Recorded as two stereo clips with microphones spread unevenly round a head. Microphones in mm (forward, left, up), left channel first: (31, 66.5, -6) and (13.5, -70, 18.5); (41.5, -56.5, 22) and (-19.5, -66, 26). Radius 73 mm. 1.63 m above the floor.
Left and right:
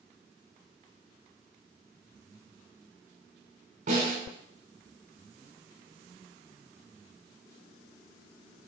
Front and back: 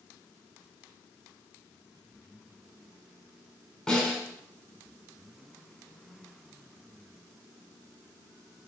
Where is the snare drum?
75° right, 5 m.